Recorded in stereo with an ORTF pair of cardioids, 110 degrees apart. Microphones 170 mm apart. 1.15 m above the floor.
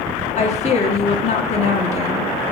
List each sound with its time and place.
0.4 s a woman speaking: 40° left, 2 m